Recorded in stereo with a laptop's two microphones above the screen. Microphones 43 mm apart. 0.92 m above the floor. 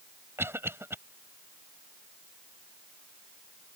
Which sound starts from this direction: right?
A cough, at 0.4 s.